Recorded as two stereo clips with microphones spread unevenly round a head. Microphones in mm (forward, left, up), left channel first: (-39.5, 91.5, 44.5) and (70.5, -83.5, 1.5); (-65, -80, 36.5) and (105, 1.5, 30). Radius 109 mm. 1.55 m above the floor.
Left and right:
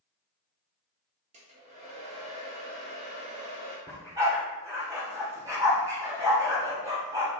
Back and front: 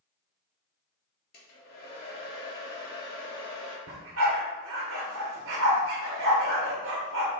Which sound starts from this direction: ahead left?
A dog barking, at 3.9 s.